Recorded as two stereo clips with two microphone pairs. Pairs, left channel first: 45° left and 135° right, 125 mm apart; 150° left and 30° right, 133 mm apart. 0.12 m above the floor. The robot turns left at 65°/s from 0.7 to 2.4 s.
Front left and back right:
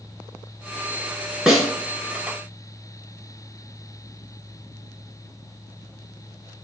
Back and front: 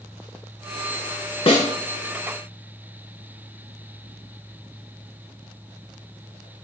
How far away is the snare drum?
About 0.5 m.